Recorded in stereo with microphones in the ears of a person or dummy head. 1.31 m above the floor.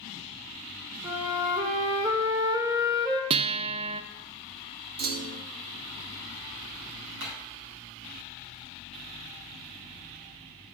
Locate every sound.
1.0 s a flute: 25° right (ahead or behind), 1.3 m
3.3 s a guitar: 35° right (ahead or behind), 0.6 m
5.0 s a clunk: 50° right (ahead or behind), 0.5 m
7.2 s hammering: 70° right (ahead or behind), 4 m